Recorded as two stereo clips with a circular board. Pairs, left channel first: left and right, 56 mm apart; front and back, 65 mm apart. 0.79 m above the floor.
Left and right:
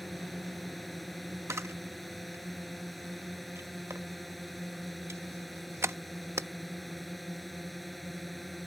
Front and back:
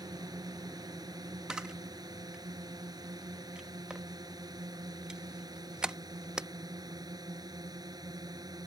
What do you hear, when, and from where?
0.0 s a drone: straight behind
1.5 s a camera shutter: 105° right